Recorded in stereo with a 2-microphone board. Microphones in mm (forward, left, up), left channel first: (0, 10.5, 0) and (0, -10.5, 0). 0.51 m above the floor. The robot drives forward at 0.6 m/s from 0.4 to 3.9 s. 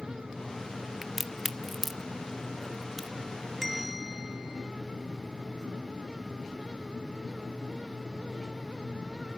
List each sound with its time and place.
1.0 s a crack: 10° right (ahead or behind), 0.8 m; by 3.1 s 5° right (ahead or behind), 2.0 m
3.6 s a bell: centre (ahead or behind), 1.0 m